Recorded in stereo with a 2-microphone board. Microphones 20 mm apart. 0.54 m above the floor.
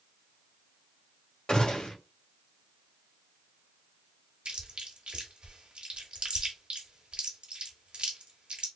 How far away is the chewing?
About 1.0 m.